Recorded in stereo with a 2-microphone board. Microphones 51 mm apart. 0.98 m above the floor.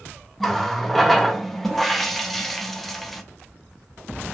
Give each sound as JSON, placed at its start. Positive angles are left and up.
{"t": 0.4, "sound": "a running tap", "side_deg": 5, "distance_m": 0.5}